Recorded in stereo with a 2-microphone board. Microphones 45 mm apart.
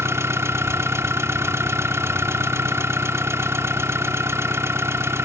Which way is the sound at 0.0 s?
85° right.